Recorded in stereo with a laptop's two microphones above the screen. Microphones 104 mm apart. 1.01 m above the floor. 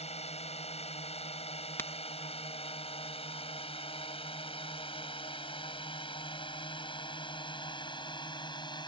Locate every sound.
0.0 s a drone: 70° left (ahead or behind); by 8.9 s 40° left (ahead or behind)
1.8 s a crack: 20° left (ahead or behind)